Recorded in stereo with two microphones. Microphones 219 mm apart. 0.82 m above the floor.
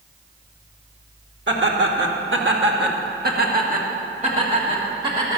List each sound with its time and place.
1.5 s laughter: 60° right (ahead or behind), 1.4 m; by 5.4 s 20° right (ahead or behind), 2 m